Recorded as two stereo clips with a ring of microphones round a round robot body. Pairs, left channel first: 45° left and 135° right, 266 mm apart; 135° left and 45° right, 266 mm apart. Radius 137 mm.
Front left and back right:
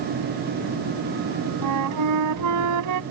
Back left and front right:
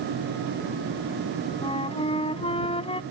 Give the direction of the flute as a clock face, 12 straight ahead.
5 o'clock.